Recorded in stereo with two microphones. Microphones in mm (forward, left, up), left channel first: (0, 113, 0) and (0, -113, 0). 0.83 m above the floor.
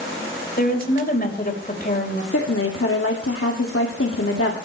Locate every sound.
0.6 s a woman speaking: 40° left (ahead or behind), 4 m
2.3 s a woman speaking: 70° left (ahead or behind), 2 m